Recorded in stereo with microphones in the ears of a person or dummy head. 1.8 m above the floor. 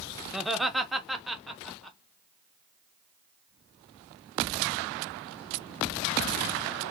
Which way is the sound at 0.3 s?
5° right (ahead or behind).